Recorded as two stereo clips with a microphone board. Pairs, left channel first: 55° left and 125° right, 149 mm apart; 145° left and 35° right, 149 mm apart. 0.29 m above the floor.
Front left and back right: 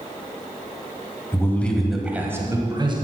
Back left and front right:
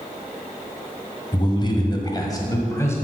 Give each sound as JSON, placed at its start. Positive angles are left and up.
{"t": 1.3, "sound": "a man speaking", "azimuth_deg": 115, "distance_m": 1.7}